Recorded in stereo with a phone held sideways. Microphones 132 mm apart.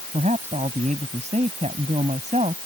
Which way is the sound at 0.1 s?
55° right (ahead or behind).